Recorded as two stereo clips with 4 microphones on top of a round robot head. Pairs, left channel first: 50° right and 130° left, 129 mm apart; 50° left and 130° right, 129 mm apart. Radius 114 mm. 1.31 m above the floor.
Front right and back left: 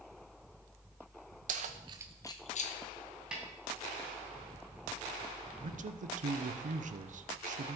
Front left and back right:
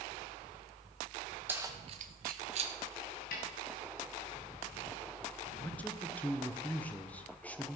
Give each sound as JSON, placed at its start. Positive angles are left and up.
{"t": 1.5, "sound": "keys jangling", "azimuth_deg": 155, "distance_m": 1.0}
{"t": 3.3, "sound": "a snare drum", "azimuth_deg": 45, "distance_m": 2.5}
{"t": 5.6, "sound": "a man speaking", "azimuth_deg": 130, "distance_m": 0.9}